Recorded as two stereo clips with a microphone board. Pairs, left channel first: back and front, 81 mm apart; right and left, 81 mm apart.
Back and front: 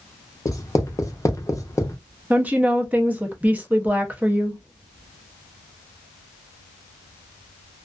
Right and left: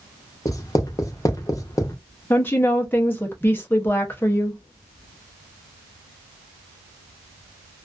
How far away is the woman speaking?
About 0.6 m.